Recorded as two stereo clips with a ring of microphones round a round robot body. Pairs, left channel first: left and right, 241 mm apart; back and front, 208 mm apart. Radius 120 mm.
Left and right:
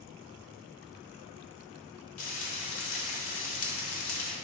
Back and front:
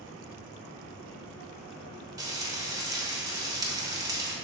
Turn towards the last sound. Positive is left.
turn(degrees=70)